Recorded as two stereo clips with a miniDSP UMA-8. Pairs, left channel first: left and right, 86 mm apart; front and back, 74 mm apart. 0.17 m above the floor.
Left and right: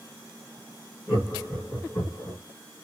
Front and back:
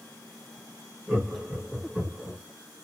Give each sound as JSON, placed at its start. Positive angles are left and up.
{"t": 1.1, "sound": "laughter", "azimuth_deg": 160, "distance_m": 1.4}